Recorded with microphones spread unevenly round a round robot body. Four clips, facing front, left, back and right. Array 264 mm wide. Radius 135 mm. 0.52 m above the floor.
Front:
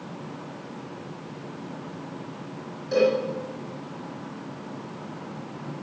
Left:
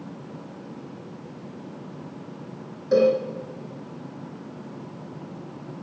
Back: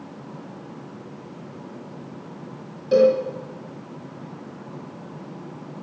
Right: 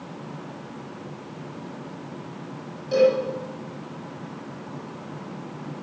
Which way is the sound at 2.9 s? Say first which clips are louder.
Even, back 5 dB; 130° left.